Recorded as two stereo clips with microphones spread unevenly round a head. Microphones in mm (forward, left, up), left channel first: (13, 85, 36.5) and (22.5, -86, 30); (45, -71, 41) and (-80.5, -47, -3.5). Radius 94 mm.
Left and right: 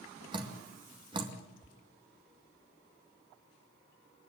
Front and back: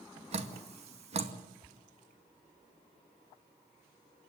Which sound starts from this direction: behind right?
Dripping, at 0.3 s.